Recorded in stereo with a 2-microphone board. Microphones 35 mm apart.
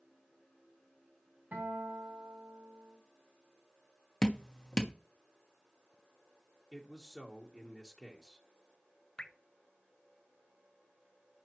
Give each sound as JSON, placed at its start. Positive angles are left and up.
{"t": 1.5, "sound": "a guitar", "side_deg": -55, "distance_m": 6.5}
{"t": 4.2, "sound": "dripping", "side_deg": 20, "distance_m": 1.1}
{"t": 6.7, "sound": "a man speaking", "side_deg": 15, "distance_m": 1.3}
{"t": 9.2, "sound": "dripping", "side_deg": 25, "distance_m": 0.7}